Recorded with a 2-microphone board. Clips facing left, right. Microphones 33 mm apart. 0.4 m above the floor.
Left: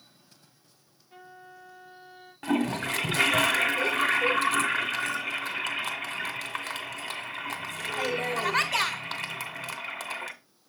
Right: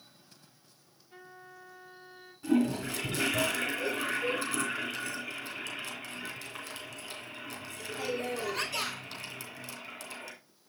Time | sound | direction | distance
1.1 | a trumpet | 15° left (ahead or behind) | 4 m
2.4 | a toilet flushing | 75° left (ahead or behind) | 1.4 m